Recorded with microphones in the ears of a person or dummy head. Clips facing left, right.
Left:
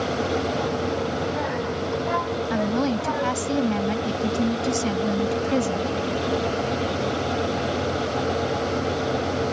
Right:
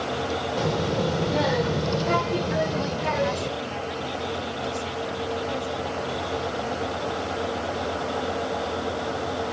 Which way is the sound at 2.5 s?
60° left (ahead or behind).